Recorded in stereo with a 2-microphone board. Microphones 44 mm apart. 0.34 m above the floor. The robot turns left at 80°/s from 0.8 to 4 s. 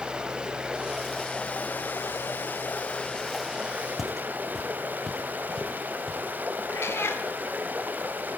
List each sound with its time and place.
0.0 s running water: 155° right, 1.0 m; by 8.4 s 50° right, 1.0 m
4.0 s footsteps: centre (ahead or behind), 0.7 m; by 6.2 s 15° left (ahead or behind), 2 m
6.7 s a cat meowing: 75° left (ahead or behind), 1.2 m